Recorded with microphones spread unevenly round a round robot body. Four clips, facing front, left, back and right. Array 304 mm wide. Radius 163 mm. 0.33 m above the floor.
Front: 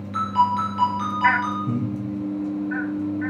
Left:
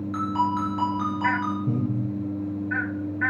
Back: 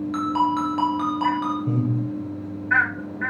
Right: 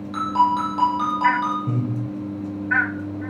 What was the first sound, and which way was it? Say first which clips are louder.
A ringtone: right 6 dB, front 2 dB; 135° right.